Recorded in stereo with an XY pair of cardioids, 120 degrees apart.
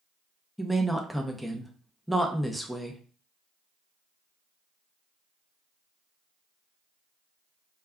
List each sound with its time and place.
0.6 s a woman speaking: straight ahead, 0.6 m